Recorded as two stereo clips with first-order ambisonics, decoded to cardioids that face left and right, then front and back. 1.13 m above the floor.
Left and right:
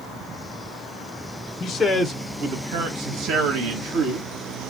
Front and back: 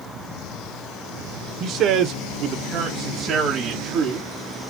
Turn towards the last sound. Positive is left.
turn(degrees=-110)